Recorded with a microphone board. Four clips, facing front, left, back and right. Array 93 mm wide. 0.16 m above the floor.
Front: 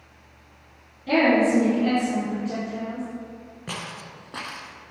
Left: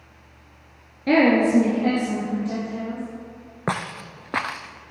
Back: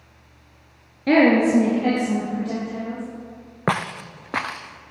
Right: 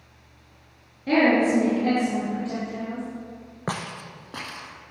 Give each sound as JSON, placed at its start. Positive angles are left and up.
{"t": 1.1, "sound": "a woman speaking", "azimuth_deg": 145, "distance_m": 1.9}
{"t": 3.7, "sound": "footsteps", "azimuth_deg": 160, "distance_m": 0.7}